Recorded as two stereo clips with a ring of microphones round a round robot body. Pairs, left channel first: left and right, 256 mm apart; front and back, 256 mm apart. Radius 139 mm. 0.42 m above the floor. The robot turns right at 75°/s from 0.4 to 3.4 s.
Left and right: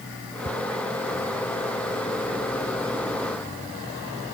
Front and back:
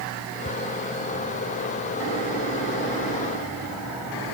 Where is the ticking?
40° right, 1.4 m; by 0.5 s 35° right, 1.4 m.